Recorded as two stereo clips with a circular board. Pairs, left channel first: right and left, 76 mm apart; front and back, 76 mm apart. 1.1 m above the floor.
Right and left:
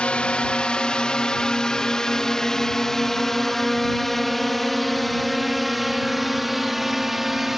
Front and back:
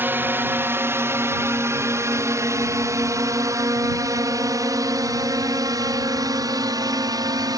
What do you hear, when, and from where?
0.0 s a drone: 150° right; by 7.6 s 175° left